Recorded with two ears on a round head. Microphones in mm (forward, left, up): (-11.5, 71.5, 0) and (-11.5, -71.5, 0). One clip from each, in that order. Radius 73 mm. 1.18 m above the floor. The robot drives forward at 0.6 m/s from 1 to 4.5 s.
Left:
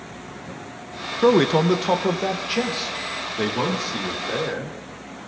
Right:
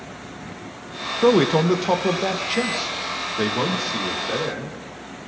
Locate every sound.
1.2 s a man speaking: 10° left (ahead or behind), 0.5 m; by 4.8 s centre (ahead or behind), 2.5 m